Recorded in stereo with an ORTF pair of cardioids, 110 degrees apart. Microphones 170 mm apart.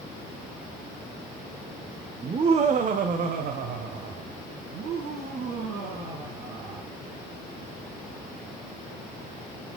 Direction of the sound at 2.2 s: 25° right.